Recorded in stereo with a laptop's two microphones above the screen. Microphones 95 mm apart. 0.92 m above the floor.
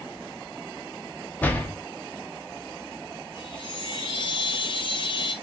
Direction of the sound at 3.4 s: 50° left (ahead or behind).